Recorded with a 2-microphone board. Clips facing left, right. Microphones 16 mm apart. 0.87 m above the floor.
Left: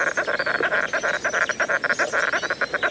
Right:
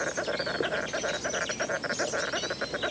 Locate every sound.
0.0 s an insect: 60° left (ahead or behind)